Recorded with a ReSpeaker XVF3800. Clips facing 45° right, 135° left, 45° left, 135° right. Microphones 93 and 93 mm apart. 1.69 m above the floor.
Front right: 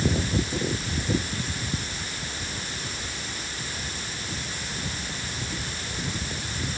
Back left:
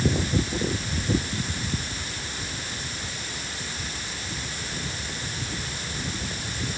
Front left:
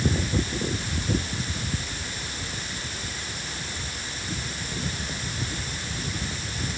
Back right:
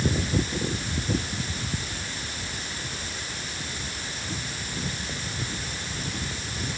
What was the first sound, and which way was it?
Only background noise.